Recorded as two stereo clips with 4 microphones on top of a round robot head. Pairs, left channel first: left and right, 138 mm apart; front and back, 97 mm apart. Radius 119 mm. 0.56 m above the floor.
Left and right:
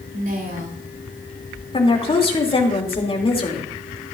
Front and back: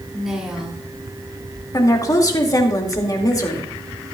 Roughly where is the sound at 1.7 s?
Ahead left.